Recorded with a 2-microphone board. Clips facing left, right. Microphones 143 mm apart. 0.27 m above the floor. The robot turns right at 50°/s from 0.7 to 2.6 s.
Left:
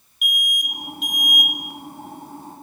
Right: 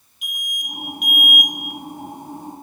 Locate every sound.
0.2 s an alarm: 35° right, 1.0 m; by 1.5 s 5° left, 1.0 m